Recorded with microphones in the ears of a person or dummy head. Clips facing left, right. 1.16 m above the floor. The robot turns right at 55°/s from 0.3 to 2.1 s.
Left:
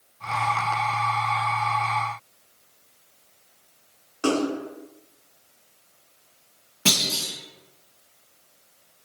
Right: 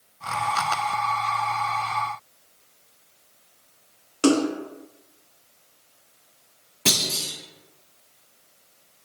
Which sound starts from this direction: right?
A splash, at 4.2 s.